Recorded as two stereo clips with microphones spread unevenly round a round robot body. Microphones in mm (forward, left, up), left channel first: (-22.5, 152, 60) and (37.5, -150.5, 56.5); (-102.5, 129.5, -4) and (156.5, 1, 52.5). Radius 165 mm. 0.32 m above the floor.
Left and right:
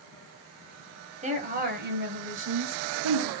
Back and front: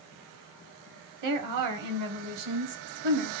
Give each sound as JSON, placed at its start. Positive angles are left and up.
{"t": 1.2, "sound": "a woman speaking", "azimuth_deg": -15, "distance_m": 2.0}